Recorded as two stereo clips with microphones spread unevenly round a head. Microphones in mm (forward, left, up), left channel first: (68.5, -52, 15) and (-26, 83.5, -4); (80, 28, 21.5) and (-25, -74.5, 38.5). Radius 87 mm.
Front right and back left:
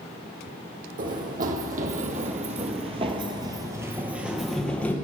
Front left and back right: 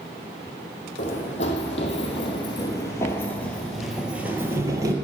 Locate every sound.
1.0 s running footsteps: 95° left, 2 m; by 5.0 s 115° right, 1.4 m